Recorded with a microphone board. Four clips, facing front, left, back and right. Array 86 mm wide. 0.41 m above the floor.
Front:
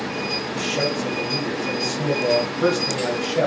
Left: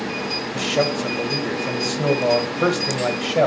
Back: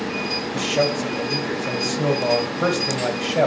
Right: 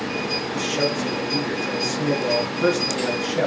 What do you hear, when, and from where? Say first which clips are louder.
0.5 s a man speaking: left 3 dB, back 4 dB; 110° left, 2.0 m